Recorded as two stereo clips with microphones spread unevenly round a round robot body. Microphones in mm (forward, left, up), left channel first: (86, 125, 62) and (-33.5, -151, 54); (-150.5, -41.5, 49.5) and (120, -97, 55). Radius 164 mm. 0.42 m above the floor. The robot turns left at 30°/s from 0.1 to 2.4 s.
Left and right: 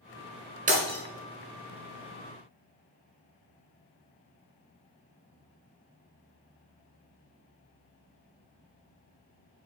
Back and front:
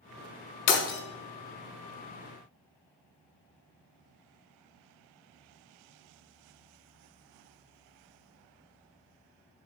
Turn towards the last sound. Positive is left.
turn(degrees=130)